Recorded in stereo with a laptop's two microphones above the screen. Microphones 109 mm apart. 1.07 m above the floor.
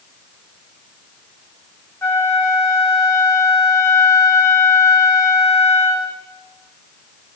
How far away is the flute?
About 1.9 m.